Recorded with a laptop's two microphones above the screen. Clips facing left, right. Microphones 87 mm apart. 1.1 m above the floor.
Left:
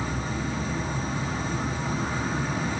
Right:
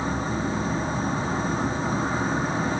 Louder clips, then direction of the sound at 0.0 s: Right 4 dB; 35° right (ahead or behind).